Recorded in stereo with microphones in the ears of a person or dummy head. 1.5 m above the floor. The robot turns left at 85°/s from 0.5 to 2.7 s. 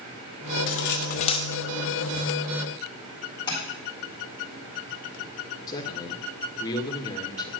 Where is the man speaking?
25° left (ahead or behind), 1.9 m.